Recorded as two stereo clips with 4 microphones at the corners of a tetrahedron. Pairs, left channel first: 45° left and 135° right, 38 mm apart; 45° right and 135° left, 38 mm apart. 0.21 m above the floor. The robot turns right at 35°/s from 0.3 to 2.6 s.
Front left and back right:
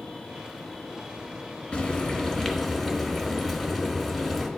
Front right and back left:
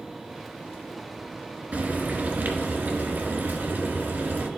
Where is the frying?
100° left, 1.0 m; by 4.5 s 130° left, 1.0 m.